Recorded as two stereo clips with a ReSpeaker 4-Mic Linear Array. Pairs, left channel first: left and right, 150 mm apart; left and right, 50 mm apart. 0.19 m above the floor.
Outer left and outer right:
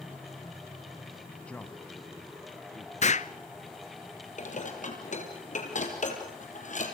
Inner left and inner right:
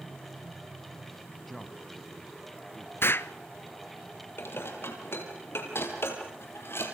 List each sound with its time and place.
1.5 s a man speaking: 5° left (ahead or behind), 1.4 m; by 2.9 s 25° left (ahead or behind), 2.5 m
3.0 s an explosion: 50° left (ahead or behind), 0.7 m
4.4 s dishes clattering: 55° left (ahead or behind), 4 m